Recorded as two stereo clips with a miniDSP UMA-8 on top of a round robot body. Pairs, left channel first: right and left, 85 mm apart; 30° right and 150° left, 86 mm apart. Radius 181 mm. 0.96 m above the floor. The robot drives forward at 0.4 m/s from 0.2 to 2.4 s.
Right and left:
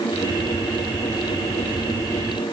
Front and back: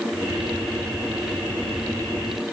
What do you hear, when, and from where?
Only background noise.